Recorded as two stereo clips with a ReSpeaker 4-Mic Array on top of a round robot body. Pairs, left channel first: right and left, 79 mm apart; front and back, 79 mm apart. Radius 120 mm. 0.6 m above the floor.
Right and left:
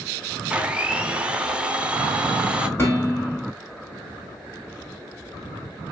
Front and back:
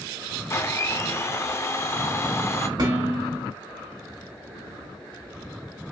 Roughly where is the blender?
Ahead left.